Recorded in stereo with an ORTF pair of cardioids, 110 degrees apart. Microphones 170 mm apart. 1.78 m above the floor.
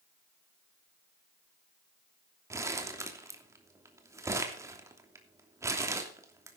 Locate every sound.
2.5 s crumpling: 15° right, 3 m